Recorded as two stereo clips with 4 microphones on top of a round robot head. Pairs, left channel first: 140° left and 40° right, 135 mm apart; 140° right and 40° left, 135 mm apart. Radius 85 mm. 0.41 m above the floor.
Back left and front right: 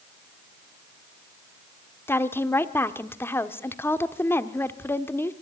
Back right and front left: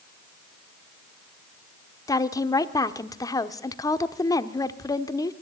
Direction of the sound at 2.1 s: 165° right.